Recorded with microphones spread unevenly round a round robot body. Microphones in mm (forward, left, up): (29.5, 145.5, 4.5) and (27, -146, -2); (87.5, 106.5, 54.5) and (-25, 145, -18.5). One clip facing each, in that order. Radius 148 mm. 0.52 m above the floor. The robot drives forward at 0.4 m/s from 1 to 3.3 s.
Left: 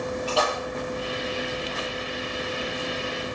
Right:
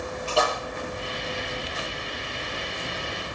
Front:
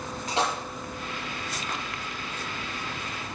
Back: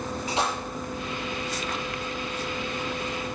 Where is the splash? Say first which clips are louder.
Right 2 dB, front 1 dB; straight ahead, 8 m.